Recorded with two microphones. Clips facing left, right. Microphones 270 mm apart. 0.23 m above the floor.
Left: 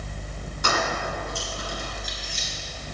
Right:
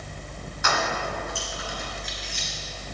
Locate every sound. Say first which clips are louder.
0.6 s keys jangling: left 1 dB; 40° left (ahead or behind), 1.9 m; by 2.5 s 50° left (ahead or behind), 3 m